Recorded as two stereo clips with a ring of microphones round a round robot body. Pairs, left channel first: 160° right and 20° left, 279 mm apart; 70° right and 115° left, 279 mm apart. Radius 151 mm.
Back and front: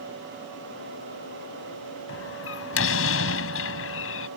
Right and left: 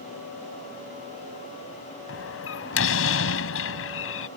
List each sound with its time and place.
2.1 s a door slam: 110° right